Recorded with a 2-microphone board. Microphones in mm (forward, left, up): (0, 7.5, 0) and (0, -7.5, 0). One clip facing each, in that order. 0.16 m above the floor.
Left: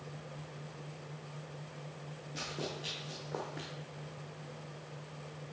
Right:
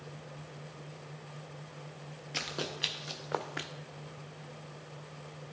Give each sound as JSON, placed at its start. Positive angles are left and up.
{"t": 2.3, "sound": "running footsteps", "side_deg": -85, "distance_m": 2.5}